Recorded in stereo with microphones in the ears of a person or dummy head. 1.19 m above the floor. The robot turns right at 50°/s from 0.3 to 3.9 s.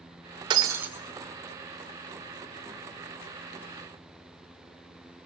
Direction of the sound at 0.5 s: 25° right (ahead or behind).